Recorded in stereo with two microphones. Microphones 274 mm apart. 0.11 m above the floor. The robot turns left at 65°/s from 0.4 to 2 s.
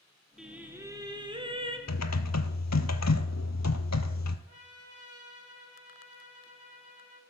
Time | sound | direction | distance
0.4 | singing | centre (ahead or behind) | 1.3 m
1.9 | typing on a keyboard | 70° left (ahead or behind) | 0.7 m
4.5 | a trumpet | 60° left (ahead or behind) | 2 m